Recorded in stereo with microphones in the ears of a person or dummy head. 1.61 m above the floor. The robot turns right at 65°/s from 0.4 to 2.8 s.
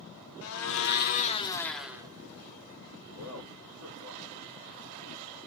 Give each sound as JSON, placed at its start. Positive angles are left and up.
{"t": 0.4, "sound": "a blender", "azimuth_deg": 90, "distance_m": 0.6}
{"t": 3.1, "sound": "a man speaking", "side_deg": -75, "distance_m": 3.0}